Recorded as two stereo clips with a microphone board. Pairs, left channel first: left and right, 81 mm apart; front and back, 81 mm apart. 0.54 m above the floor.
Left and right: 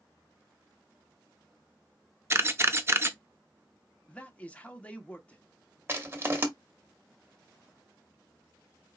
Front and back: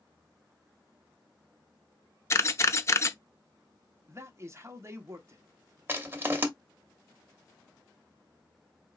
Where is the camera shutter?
40° right, 0.6 m.